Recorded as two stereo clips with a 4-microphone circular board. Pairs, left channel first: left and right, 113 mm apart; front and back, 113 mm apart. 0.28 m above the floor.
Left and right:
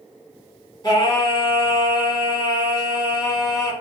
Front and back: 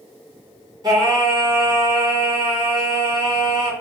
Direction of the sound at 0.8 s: 140° left.